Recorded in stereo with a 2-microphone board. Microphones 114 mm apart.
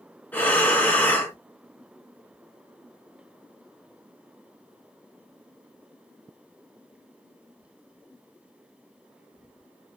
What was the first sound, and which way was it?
Breathing, 15° left (ahead or behind).